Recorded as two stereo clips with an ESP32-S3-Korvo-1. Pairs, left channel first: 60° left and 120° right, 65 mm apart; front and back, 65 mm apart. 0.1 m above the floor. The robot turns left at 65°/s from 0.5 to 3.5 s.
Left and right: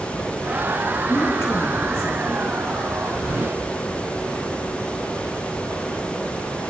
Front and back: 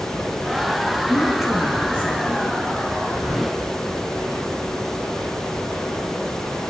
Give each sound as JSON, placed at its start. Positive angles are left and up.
{"t": 1.1, "sound": "a woman speaking", "azimuth_deg": 110, "distance_m": 2.0}